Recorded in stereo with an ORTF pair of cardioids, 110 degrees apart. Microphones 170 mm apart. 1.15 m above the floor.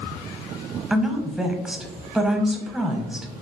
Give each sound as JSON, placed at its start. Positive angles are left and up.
{"t": 0.9, "sound": "a woman speaking", "azimuth_deg": -5, "distance_m": 0.7}